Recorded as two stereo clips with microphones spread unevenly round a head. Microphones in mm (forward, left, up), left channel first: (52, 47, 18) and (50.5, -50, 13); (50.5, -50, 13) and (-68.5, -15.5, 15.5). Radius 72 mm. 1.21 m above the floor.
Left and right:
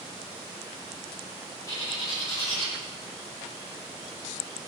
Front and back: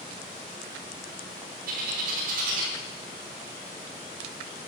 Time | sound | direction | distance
1.7 | a bird | 155° left | 4 m